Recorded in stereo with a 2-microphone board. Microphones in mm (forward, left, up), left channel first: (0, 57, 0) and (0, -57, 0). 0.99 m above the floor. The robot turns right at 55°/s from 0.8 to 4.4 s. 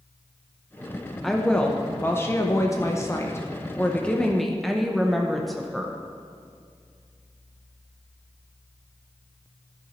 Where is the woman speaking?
Centre (ahead or behind), 0.7 m.